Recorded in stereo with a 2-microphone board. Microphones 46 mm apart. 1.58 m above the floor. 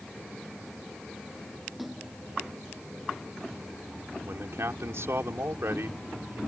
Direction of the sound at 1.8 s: Centre (ahead or behind).